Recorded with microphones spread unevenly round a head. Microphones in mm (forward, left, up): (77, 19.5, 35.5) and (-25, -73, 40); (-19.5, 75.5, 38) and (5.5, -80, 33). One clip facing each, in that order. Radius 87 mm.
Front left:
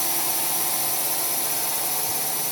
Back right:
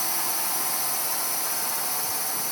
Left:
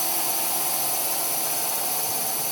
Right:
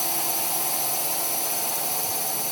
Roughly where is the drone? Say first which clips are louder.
Front left 2 dB, even; ahead.